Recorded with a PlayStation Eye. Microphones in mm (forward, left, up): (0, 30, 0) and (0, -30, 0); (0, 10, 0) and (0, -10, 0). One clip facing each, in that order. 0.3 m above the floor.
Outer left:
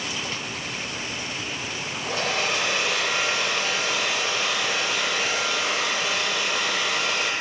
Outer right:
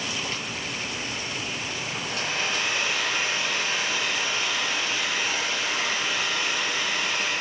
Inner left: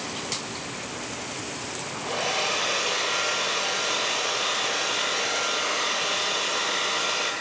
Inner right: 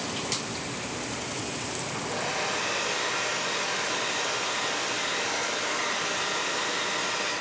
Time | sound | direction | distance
2.1 | a hair dryer | 70° left (ahead or behind) | 1.3 m